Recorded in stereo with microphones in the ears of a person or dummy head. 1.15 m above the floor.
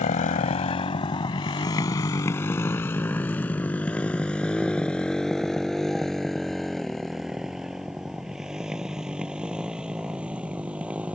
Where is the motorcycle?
40° left (ahead or behind); by 11.2 s 5° right (ahead or behind).